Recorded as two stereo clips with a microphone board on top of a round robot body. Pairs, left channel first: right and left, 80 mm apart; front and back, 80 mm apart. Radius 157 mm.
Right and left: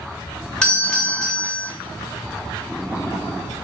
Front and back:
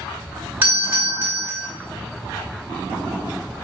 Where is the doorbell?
150° right, 1.4 m.